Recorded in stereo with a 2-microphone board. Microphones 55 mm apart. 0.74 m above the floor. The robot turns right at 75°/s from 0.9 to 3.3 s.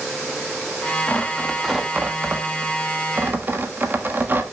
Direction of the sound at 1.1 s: 30° left (ahead or behind).